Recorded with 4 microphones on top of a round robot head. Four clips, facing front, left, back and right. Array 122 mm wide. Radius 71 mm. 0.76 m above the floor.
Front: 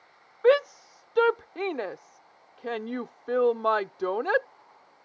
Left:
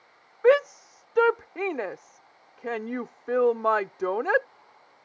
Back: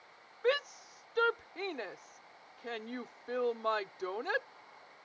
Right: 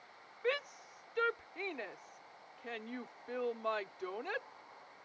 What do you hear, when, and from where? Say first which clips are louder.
0.4 s a shout: left 18 dB, front 11 dB; 55° left